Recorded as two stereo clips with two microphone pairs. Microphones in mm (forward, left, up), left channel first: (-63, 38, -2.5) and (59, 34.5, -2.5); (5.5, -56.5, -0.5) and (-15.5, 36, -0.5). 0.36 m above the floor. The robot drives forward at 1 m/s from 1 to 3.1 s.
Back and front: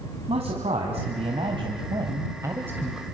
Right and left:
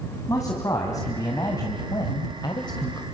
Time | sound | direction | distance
0.3 | a man speaking | 30° right | 2.5 m